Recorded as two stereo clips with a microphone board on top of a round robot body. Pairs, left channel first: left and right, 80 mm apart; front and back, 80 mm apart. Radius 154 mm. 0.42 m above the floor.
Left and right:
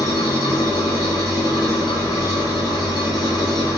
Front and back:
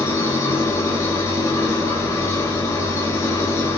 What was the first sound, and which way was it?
An engine running, 55° left.